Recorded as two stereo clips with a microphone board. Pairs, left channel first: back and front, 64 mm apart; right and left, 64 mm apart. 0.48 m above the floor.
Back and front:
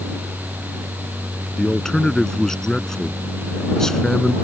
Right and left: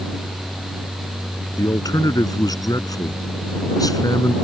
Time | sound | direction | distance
1.6 | a man speaking | 100° right | ?